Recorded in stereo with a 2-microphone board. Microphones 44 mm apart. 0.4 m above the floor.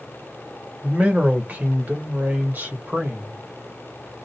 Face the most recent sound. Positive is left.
turn(degrees=-50)  # may be behind; listen again after turning